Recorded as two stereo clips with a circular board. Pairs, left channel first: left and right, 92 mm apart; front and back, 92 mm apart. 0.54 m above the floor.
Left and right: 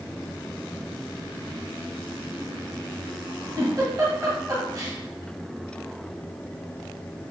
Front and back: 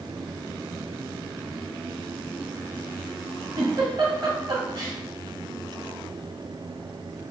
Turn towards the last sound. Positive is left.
turn(degrees=-140)